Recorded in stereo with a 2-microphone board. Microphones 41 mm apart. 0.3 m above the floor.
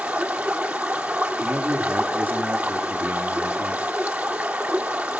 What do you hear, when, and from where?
0.0 s running water: 40° right (ahead or behind), 2.5 m
1.4 s a man speaking: 60° right (ahead or behind), 4 m